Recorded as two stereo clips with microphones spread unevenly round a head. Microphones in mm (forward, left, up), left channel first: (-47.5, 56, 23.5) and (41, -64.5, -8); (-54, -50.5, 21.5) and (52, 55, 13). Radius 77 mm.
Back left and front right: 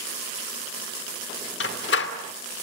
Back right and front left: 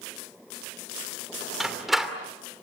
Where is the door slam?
135° left, 2.5 m.